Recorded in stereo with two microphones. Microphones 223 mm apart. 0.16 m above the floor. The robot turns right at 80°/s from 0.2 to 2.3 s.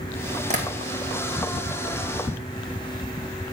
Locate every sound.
0.5 s tapping: 30° right (ahead or behind), 2.5 m; by 0.7 s 45° right (ahead or behind), 2.5 m